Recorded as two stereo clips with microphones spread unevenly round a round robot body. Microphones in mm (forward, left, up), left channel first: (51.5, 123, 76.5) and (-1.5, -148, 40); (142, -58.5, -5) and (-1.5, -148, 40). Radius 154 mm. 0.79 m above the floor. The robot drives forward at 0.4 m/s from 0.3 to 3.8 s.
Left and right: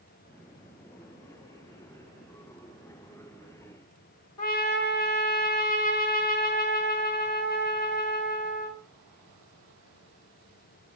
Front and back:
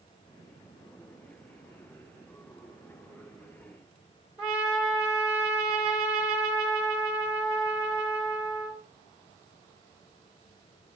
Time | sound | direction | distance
4.4 | a trumpet | 105° left | 1.8 m